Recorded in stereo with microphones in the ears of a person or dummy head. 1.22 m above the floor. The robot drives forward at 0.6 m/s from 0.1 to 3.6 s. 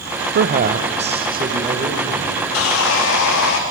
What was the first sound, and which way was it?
A man speaking, 50° right (ahead or behind).